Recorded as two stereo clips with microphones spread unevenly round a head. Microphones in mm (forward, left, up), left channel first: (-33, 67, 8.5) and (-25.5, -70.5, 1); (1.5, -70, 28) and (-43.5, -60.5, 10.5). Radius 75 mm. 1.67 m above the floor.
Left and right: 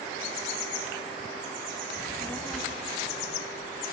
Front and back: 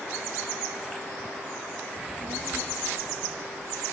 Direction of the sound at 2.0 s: 60° left.